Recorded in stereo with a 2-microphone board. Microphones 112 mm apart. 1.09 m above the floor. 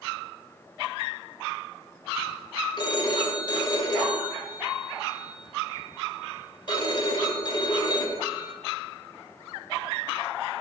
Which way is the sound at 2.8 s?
45° left (ahead or behind).